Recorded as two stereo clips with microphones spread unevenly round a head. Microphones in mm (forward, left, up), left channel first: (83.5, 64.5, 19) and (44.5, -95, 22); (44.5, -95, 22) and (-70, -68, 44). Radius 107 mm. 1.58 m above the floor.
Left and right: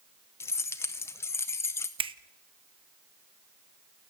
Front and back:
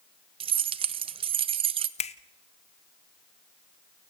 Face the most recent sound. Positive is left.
turn(degrees=-45)